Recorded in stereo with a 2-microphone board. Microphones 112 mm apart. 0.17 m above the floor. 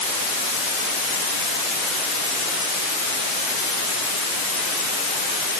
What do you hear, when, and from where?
Only background noise.